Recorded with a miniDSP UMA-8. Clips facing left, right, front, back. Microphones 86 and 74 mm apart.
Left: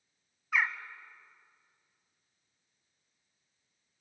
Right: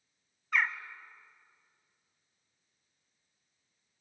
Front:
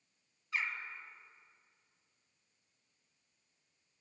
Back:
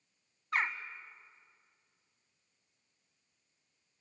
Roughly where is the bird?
Behind.